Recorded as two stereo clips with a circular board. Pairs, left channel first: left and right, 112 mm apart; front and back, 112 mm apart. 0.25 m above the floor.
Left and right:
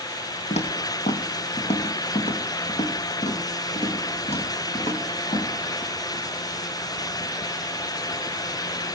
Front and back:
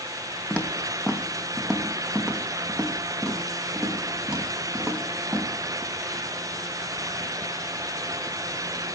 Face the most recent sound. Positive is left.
turn(degrees=100)